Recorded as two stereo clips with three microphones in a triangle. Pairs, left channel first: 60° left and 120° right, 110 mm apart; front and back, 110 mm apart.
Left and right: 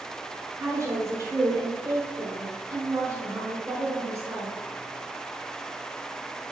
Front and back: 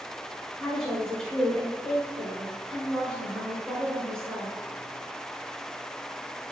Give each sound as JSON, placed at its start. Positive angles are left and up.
{"t": 0.6, "sound": "a woman speaking", "azimuth_deg": -80, "distance_m": 1.3}